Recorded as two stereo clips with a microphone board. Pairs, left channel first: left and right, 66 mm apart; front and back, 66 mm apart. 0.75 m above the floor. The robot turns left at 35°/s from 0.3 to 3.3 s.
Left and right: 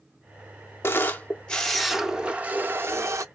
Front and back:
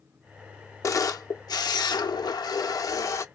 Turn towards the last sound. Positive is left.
turn(degrees=-50)